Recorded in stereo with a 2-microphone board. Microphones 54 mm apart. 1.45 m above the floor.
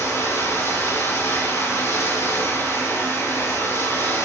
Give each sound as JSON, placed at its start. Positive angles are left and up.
{"t": 0.0, "sound": "running water", "side_deg": 85, "distance_m": 3.5}